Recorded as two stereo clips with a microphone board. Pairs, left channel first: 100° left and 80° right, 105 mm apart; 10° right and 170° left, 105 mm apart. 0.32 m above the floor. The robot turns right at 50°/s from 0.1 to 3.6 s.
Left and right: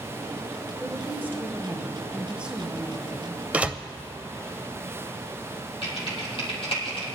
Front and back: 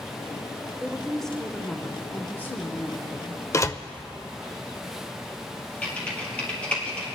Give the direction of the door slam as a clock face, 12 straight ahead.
1 o'clock.